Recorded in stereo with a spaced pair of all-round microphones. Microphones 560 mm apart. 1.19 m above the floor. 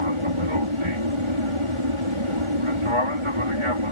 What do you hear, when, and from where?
0.0 s an aircraft: 60° right (ahead or behind)